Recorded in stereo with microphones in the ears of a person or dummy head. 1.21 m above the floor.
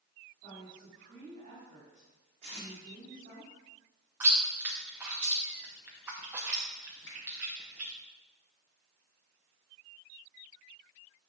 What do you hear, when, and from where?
0.4 s a woman speaking: 45° right (ahead or behind), 4 m
2.4 s tape being pulled: 40° right (ahead or behind), 3.5 m
4.2 s chewing: 15° right (ahead or behind), 0.8 m
7.1 s a finger snap: 70° left (ahead or behind), 3.5 m